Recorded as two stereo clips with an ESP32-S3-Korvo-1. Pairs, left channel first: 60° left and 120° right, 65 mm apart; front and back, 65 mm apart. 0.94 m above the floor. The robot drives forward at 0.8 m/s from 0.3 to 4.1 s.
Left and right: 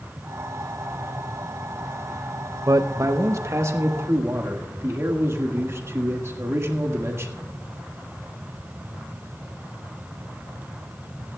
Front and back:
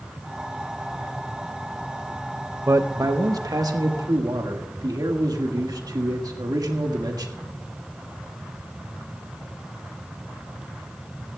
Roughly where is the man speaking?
Behind right.